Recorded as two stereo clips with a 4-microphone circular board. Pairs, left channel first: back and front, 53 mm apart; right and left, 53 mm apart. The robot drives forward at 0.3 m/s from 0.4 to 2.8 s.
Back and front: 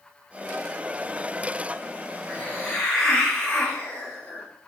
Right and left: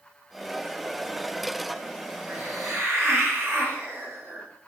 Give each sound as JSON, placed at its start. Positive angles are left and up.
{"t": 2.3, "sound": "a hiss", "azimuth_deg": 115, "distance_m": 1.5}